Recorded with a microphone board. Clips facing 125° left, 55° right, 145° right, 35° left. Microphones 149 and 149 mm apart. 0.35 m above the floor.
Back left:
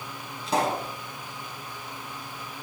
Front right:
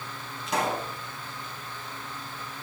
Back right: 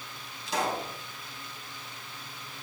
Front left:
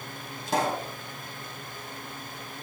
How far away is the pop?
About 2.5 m.